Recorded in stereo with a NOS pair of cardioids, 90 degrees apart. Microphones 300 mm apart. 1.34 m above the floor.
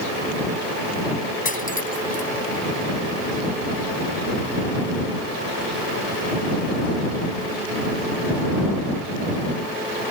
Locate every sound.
1.4 s cutlery clinking: 30° left